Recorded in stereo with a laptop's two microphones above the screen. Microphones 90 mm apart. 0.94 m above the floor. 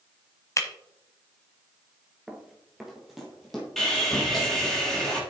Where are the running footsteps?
10° right (ahead or behind), 1.1 m; by 3.7 s centre (ahead or behind), 2.5 m.